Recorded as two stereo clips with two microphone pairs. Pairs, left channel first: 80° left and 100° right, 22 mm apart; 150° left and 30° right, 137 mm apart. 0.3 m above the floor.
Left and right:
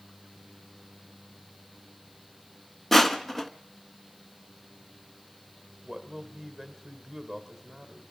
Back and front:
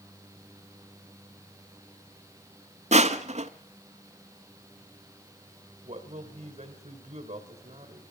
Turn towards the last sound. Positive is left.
turn(degrees=-15)